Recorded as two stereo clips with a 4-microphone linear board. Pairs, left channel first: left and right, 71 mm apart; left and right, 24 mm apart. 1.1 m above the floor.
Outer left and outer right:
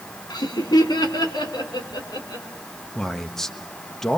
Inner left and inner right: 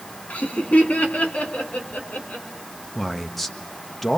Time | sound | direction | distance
0.3 | laughter | 80° left | 3 m
3.0 | a man speaking | 5° left (ahead or behind) | 1.3 m